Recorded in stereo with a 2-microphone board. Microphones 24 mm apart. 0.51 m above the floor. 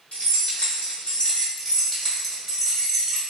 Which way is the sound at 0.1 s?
70° left (ahead or behind).